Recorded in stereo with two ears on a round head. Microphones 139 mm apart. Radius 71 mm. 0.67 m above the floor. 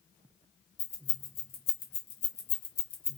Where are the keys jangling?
70° left (ahead or behind), 1.7 m; by 3.2 s 5° right (ahead or behind), 0.6 m.